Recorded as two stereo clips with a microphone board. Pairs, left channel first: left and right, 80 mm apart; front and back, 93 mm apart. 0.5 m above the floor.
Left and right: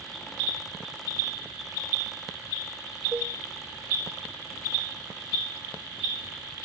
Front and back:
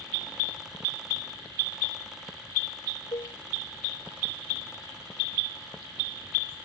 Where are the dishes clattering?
30° right.